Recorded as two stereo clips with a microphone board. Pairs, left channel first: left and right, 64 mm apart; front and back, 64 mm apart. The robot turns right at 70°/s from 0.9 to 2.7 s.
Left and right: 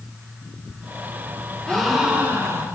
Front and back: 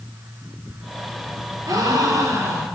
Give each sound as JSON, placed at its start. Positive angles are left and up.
{"t": 1.7, "sound": "a gasp", "azimuth_deg": 170, "distance_m": 2.0}